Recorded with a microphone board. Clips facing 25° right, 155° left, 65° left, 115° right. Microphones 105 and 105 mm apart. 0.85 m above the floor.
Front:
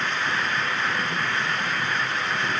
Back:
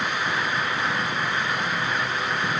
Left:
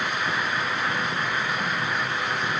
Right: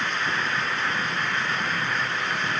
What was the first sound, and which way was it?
Only background noise.